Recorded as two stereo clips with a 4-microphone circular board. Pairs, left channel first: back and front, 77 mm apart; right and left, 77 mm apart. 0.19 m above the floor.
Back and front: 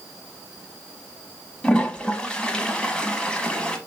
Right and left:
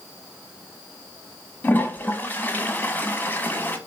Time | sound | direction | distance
1.6 | a toilet flushing | 120° right | 0.8 m